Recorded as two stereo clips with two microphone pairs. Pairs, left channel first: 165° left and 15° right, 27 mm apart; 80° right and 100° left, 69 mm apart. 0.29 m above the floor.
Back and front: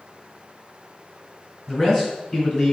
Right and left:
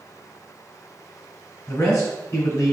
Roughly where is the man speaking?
Behind right.